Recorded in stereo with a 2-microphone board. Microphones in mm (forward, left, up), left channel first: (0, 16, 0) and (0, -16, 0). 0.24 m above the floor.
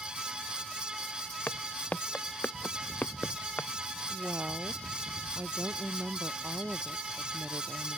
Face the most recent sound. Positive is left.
turn(degrees=-70)  # may be behind; listen again after turning